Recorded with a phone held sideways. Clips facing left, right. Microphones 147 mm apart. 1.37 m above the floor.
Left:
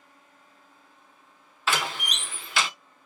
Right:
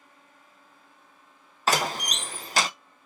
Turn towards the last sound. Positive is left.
turn(degrees=-40)  # may be behind; listen again after turning